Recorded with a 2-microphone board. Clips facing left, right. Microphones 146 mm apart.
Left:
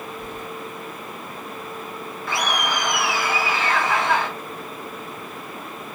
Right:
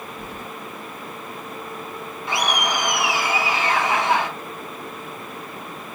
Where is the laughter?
20° right (ahead or behind), 1.6 m.